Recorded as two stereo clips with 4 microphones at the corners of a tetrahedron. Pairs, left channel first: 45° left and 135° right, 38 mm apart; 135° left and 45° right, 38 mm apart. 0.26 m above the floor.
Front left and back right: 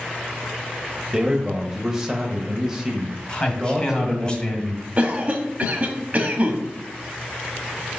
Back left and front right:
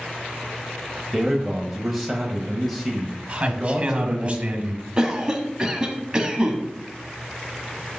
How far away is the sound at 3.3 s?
About 1.6 m.